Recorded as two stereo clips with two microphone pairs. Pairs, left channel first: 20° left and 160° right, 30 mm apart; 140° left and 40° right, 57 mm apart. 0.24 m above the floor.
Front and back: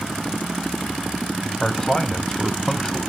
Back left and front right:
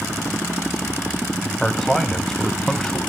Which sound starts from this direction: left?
A man speaking, at 1.6 s.